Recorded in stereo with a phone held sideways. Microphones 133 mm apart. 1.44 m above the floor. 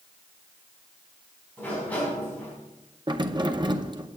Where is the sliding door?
10° left (ahead or behind), 4.5 m.